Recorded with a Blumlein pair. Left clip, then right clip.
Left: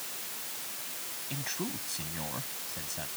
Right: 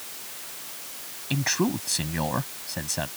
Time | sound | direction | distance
1.3 | a man speaking | 30° right | ?